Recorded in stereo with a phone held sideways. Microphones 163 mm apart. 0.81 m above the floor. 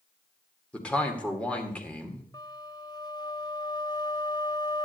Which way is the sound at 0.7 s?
10° left (ahead or behind).